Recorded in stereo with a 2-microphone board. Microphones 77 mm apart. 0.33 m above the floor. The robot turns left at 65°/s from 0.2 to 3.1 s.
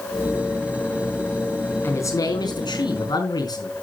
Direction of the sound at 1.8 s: 150° left.